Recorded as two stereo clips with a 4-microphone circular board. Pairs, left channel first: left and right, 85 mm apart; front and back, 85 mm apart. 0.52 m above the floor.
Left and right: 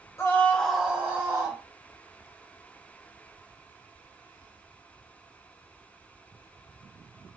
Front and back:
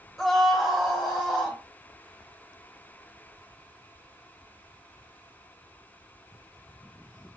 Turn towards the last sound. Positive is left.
turn(degrees=-95)